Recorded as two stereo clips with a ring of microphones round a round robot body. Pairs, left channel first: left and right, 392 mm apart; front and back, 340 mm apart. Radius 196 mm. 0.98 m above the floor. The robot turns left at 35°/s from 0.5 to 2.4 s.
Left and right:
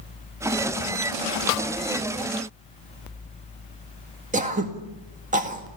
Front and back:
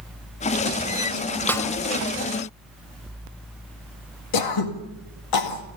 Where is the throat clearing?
20° right, 1.9 m.